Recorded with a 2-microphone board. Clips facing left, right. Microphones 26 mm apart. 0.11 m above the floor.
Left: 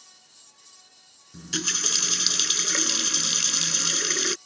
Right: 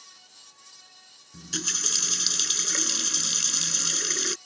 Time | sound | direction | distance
1.3 | a running tap | 15° left (ahead or behind) | ?